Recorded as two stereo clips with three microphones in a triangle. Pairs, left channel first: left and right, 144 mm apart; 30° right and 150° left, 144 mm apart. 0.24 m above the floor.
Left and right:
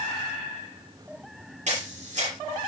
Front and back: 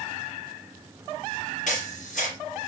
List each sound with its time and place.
1.7 s a camera shutter: 55° right, 4.5 m